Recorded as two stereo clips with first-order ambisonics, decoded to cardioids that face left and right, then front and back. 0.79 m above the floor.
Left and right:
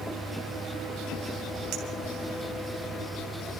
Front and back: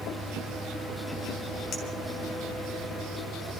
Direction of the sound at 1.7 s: 55° right.